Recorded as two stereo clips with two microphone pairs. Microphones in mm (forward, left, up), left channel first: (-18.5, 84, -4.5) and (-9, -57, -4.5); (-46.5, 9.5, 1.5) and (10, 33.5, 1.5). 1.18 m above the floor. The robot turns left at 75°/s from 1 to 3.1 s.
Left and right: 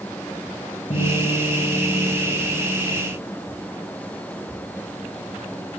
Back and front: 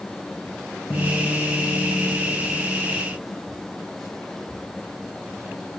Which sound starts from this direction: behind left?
A guitar, at 0.9 s.